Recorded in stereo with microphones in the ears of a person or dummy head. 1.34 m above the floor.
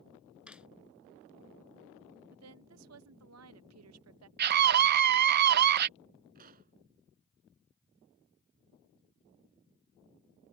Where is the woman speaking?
85° right.